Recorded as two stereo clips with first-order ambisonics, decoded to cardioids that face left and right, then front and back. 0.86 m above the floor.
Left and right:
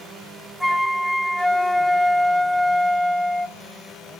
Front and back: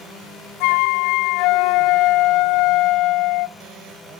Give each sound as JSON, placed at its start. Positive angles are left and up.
{"t": 0.6, "sound": "a flute", "azimuth_deg": 0, "distance_m": 0.5}